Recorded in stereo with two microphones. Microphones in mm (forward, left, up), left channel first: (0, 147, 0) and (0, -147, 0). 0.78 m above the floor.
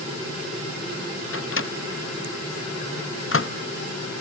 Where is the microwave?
45° left (ahead or behind), 0.6 m.